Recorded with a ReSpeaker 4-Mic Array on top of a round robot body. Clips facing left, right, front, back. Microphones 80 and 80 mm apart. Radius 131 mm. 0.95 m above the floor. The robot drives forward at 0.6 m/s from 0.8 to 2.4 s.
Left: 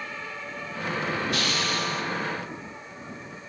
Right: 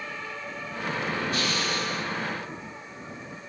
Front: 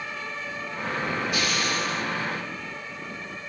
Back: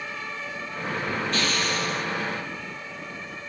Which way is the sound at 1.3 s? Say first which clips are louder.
Left 1 dB, even; 80° left.